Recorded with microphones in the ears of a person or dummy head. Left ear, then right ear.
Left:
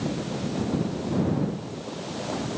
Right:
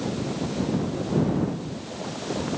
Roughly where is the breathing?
No breathing in this recording.